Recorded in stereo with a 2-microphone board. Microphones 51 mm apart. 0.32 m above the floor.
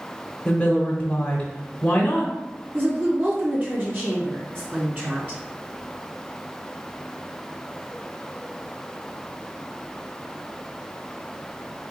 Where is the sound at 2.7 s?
40° right (ahead or behind), 1.9 m.